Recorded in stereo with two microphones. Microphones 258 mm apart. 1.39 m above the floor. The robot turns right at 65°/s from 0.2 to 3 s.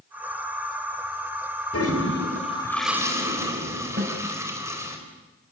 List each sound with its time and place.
1.7 s a toilet flushing: 110° left, 4 m; by 5.0 s 170° right, 4 m
4.0 s a snare drum: 40° right (ahead or behind), 6 m